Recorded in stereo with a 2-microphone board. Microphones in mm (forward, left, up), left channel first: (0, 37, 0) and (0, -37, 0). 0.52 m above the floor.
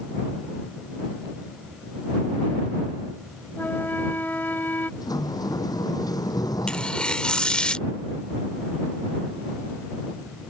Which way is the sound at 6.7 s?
10° left (ahead or behind).